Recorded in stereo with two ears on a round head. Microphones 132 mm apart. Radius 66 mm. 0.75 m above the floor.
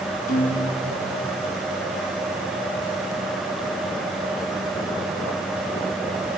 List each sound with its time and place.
0.3 s a guitar: 60° left (ahead or behind), 7.5 m